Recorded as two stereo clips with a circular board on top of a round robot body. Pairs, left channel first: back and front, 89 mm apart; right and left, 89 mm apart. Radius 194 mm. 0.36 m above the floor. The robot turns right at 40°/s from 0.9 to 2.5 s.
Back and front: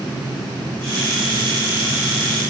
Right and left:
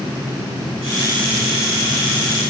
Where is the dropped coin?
No dropped coin in this recording.